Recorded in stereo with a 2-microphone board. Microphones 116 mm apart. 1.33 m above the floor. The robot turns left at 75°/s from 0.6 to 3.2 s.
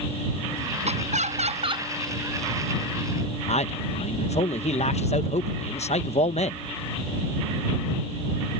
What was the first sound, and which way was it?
Laughter, 70° right.